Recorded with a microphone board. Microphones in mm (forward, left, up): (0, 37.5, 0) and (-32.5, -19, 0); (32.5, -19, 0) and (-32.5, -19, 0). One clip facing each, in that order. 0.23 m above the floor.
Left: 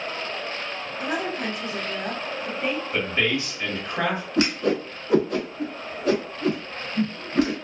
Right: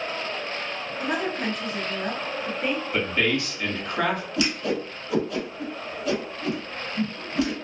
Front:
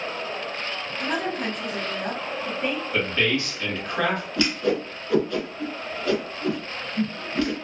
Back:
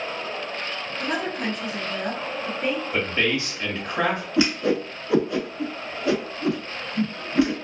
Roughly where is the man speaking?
Behind left.